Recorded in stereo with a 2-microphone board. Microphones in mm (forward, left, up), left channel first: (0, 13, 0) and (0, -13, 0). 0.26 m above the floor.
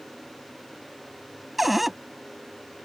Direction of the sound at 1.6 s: Centre (ahead or behind).